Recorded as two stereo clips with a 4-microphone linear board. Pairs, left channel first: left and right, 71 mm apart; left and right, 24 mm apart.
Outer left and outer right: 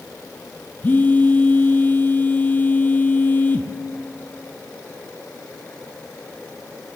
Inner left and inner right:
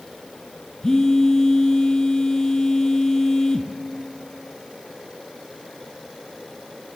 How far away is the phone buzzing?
About 0.6 m.